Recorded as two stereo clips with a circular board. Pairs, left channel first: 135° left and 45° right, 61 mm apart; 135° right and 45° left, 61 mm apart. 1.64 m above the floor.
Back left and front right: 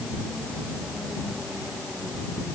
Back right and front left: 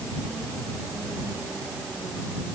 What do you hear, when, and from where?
Only background noise.